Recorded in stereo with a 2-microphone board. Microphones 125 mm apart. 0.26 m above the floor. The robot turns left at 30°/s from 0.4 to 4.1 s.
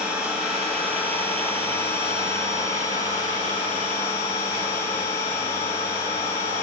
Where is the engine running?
175° right, 8 m; by 6.6 s 75° left, 8 m.